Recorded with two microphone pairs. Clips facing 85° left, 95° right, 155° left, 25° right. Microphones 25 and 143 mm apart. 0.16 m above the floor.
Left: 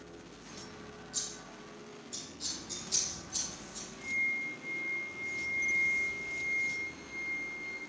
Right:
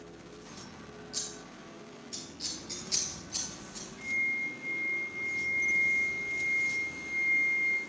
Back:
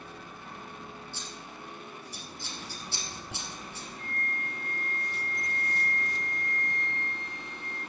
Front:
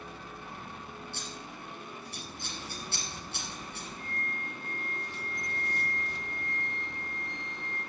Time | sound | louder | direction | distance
1.1 | scissors | right 1 dB, front 1 dB | 40° right | 3 m
4.0 | a flute | right 2 dB, back 4 dB | 50° right | 4.5 m